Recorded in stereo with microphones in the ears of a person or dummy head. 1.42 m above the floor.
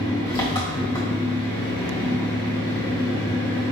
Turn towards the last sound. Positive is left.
turn(degrees=15)  # may be behind; listen again after turning